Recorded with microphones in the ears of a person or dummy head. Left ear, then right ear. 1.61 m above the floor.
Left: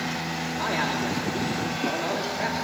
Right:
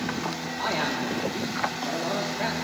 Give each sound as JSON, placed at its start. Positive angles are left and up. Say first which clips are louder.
{"t": 0.6, "sound": "a man speaking", "louder": "even", "side_deg": 0, "distance_m": 3.5}